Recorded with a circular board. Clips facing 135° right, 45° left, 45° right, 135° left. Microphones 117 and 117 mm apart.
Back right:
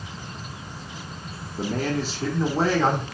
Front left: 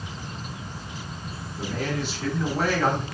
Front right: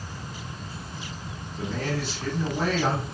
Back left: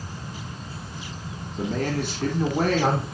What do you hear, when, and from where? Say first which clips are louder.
1.6 s a man speaking: back right 3 dB, back left 4 dB; straight behind, 2 m; by 3.0 s 160° left, 3 m